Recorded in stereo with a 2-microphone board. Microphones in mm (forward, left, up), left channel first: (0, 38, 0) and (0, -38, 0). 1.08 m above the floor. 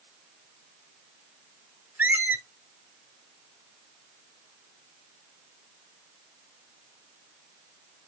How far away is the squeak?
About 0.7 m.